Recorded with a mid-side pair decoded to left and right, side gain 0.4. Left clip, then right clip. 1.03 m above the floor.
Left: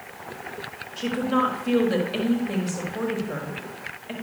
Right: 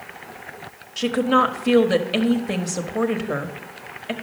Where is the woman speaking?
65° right, 1.5 m.